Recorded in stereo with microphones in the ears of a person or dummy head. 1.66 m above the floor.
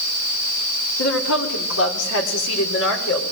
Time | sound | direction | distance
1.0 | a woman speaking | 80° left | 4.5 m